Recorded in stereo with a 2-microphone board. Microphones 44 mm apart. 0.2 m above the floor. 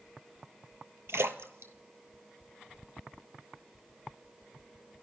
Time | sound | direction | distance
1.1 | a splash | 75° right (ahead or behind) | 0.7 m